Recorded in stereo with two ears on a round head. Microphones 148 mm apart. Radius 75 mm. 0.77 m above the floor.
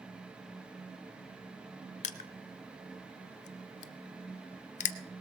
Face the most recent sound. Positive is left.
turn(degrees=45)  # may be behind; listen again after turning